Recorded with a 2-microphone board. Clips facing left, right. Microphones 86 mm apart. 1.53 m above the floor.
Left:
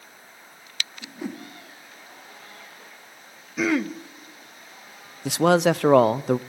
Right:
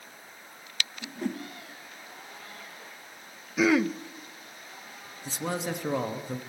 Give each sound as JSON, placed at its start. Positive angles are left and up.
{"t": 1.0, "sound": "a whoosh", "side_deg": 5, "distance_m": 1.4}
{"t": 3.6, "sound": "throat clearing", "side_deg": 0, "distance_m": 0.5}
{"t": 5.2, "sound": "a man speaking", "side_deg": 80, "distance_m": 0.5}